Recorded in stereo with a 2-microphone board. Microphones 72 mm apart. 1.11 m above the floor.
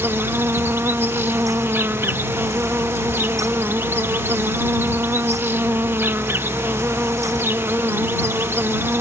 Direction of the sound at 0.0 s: 35° right (ahead or behind).